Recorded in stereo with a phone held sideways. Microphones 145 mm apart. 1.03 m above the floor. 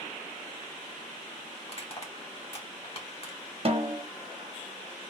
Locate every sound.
1.6 s crushing: 45° left (ahead or behind), 1.4 m
3.6 s a snare drum: 45° right (ahead or behind), 1.0 m